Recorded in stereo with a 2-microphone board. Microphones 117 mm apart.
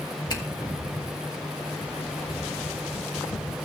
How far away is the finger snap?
About 2.5 m.